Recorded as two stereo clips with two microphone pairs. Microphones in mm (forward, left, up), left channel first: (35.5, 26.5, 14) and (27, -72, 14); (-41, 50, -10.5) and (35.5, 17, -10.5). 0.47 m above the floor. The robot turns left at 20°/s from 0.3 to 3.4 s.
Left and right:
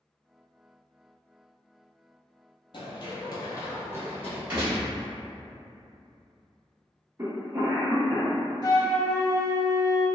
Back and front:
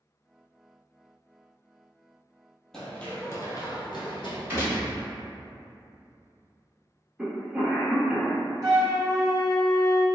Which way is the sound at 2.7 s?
75° left.